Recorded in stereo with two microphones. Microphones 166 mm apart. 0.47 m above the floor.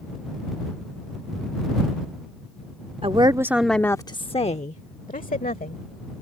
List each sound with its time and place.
3.0 s a woman speaking: 35° right (ahead or behind); by 5.8 s 55° left (ahead or behind)